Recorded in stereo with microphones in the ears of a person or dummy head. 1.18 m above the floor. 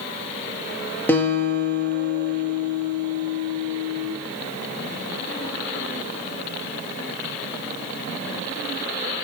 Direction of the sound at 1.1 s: 5° left (ahead or behind).